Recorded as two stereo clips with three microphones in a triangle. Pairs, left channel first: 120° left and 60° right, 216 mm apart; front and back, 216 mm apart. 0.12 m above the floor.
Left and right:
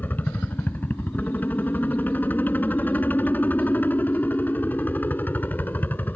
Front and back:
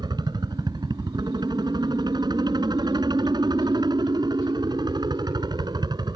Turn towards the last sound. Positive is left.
turn(degrees=-175)